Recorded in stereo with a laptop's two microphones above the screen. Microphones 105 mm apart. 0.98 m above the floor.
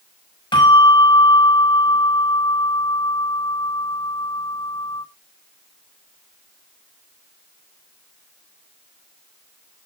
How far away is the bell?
About 5.5 m.